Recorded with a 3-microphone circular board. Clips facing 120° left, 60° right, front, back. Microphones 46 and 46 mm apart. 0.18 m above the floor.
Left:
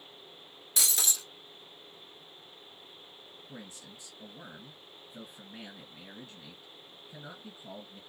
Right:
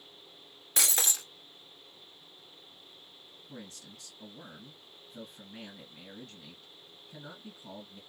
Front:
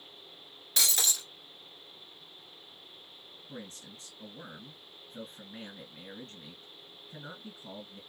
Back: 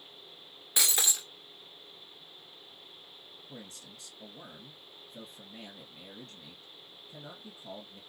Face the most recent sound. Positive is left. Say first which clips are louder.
# right 1 dB, front 4 dB
turn(degrees=50)